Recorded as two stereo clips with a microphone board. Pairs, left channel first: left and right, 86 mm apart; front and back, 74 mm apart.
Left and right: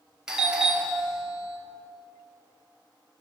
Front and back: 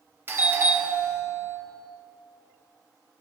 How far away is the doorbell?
About 2.5 m.